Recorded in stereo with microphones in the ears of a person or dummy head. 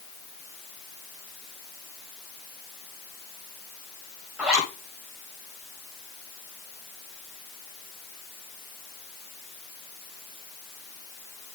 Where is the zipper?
5° right (ahead or behind), 1.4 m.